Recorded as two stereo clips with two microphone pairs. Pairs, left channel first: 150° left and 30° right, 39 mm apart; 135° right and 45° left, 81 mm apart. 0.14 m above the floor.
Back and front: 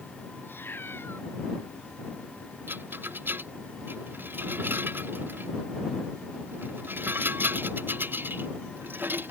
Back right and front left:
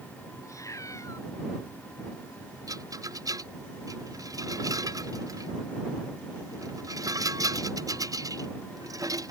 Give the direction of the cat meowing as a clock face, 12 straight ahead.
6 o'clock.